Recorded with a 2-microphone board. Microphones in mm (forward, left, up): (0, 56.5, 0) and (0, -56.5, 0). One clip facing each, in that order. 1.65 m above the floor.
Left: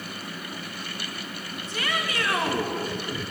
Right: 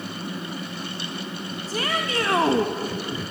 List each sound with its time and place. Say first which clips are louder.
1.7 s a shout: right 3 dB; 30° right (ahead or behind), 1.7 m